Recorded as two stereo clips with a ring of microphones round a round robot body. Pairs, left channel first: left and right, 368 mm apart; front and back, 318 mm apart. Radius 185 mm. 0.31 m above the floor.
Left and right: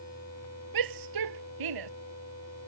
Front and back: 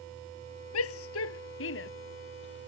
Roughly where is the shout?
Ahead right.